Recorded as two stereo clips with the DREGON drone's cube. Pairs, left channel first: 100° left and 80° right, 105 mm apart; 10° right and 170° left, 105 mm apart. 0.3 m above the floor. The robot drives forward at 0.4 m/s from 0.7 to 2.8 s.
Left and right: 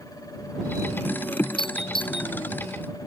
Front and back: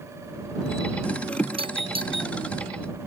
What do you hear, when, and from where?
1.6 s a doorbell: 140° left